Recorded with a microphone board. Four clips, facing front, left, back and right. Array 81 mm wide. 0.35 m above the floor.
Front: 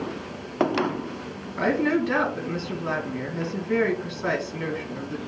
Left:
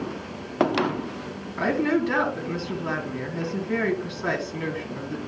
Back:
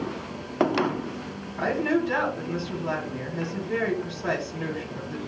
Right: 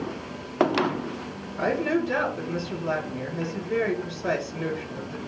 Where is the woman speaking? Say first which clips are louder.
Left 2 dB, front 2 dB; 45° left, 4 m.